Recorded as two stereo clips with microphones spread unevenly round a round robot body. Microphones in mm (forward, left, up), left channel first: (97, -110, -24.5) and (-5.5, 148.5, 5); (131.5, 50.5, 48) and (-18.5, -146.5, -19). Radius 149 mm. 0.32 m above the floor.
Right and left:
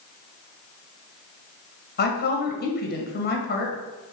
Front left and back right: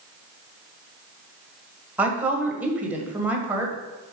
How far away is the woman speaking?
About 1.3 m.